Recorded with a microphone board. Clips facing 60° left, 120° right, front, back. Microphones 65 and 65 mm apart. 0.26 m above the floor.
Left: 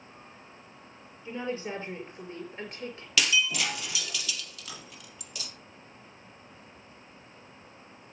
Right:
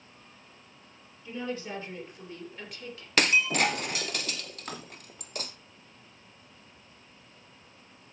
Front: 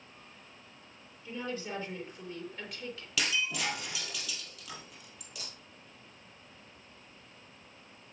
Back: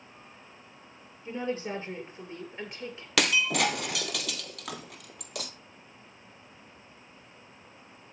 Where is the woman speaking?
125° left, 7 m; by 3.1 s 115° left, 5.5 m.